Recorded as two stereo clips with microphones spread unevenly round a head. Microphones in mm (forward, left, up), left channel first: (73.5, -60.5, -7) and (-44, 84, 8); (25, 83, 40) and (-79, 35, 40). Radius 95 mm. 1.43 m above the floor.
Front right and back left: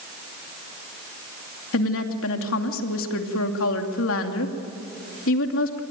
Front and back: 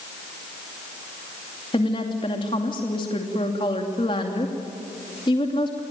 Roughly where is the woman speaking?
Ahead right.